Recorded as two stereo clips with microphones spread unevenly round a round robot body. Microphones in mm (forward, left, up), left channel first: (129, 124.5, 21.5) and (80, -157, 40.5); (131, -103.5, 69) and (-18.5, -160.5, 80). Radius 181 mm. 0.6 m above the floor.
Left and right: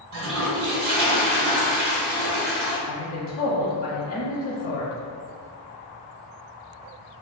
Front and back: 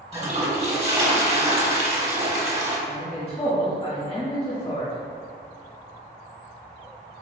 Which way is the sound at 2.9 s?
95° left.